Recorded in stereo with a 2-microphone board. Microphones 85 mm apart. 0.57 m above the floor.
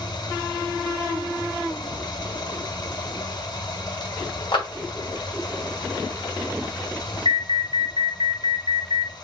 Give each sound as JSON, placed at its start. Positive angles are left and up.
{"t": 0.0, "sound": "running water", "side_deg": 55, "distance_m": 1.1}
{"t": 4.5, "sound": "a clap", "side_deg": 70, "distance_m": 1.5}
{"t": 7.2, "sound": "an alarm", "side_deg": -65, "distance_m": 2.0}